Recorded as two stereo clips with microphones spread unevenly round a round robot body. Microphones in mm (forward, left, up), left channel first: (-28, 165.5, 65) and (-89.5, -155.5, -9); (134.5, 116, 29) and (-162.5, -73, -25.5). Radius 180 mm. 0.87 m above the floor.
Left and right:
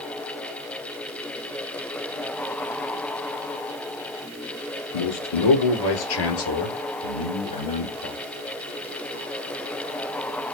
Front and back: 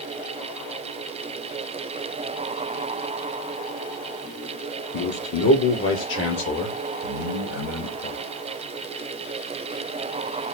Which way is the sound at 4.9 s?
85° left.